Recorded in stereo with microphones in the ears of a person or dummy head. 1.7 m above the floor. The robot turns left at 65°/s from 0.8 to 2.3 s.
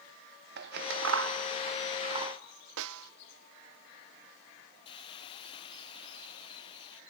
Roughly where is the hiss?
Left.